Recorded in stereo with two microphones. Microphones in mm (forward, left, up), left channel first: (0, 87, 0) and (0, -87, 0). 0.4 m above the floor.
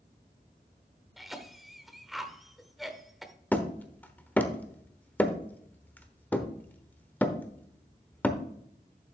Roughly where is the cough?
Centre.